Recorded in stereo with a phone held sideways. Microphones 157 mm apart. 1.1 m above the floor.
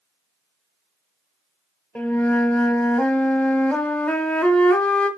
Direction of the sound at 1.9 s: 5° left (ahead or behind).